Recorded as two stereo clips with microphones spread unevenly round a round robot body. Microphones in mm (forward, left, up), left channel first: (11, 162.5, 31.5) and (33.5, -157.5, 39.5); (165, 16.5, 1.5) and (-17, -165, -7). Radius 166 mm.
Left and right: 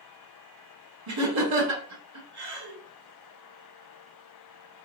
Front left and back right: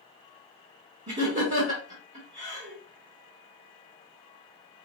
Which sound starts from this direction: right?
Laughter, at 1.1 s.